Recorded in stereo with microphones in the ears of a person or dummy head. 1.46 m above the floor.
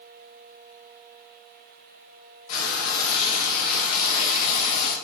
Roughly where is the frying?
Left.